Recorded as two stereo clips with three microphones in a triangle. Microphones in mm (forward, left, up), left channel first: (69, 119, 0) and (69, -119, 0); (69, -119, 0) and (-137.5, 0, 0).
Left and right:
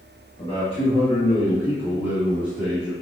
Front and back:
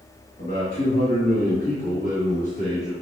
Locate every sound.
0.4 s a man speaking: 20° left, 1.9 m; by 2.9 s 25° left, 4 m